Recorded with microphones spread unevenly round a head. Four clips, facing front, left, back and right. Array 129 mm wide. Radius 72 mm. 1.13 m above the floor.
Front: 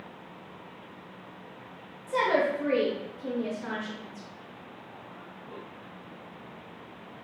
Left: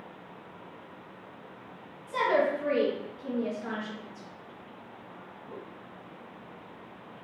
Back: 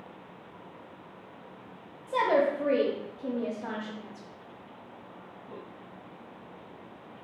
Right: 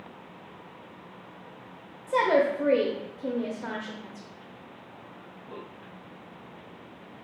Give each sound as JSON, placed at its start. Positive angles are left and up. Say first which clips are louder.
{"t": 2.1, "sound": "a woman speaking", "louder": "right 3 dB, back 1 dB", "azimuth_deg": -90, "distance_m": 0.5}